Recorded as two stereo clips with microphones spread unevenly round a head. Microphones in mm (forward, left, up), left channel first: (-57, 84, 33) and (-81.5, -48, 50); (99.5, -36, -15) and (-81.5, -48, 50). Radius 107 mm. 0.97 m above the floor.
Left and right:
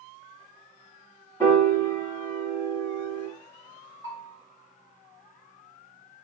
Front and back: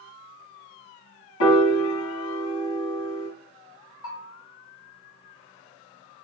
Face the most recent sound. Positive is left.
turn(degrees=5)